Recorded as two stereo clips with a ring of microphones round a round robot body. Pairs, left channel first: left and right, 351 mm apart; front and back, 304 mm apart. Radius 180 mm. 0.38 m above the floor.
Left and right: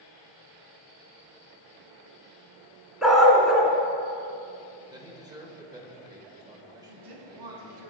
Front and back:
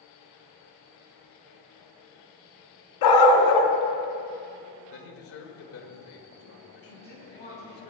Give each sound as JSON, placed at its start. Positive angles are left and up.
{"t": 3.0, "sound": "a dog barking", "azimuth_deg": 0, "distance_m": 1.5}
{"t": 4.9, "sound": "a man speaking", "azimuth_deg": -15, "distance_m": 1.6}
{"t": 6.9, "sound": "a woman speaking", "azimuth_deg": -70, "distance_m": 4.0}